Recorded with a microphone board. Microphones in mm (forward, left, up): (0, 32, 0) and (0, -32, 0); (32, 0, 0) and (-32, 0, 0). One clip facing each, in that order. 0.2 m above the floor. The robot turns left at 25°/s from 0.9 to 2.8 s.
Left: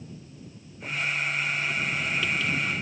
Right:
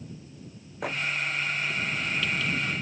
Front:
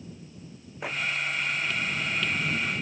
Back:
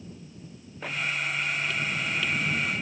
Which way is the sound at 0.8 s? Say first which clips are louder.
Right 4 dB, front 1 dB; 75° right.